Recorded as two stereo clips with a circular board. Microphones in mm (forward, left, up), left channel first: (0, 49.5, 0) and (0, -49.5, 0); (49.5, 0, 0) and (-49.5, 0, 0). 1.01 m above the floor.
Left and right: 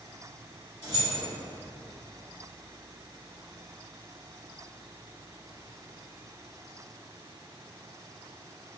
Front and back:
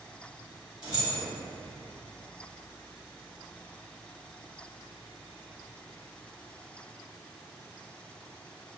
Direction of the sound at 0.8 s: 135° right.